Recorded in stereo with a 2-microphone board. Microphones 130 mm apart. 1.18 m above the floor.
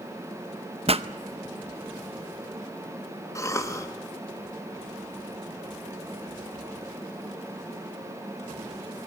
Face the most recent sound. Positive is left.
turn(degrees=25)  # may be behind; listen again after turning